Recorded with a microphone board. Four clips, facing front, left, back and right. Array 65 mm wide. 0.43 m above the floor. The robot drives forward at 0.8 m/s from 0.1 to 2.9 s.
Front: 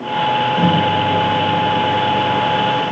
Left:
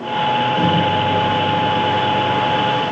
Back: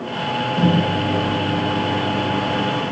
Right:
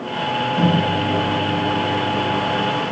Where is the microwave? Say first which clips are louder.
Left 2 dB, front 3 dB; 70° right, 1.7 m; by 2.9 s 130° right, 2 m.